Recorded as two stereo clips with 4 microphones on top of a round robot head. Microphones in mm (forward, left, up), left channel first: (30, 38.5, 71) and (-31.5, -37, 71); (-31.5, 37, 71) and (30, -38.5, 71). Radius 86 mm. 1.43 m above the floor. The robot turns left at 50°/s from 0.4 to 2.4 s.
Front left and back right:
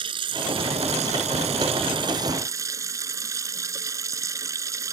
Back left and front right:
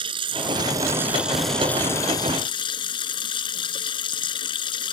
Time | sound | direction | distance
0.0 | running water | 90° right | ?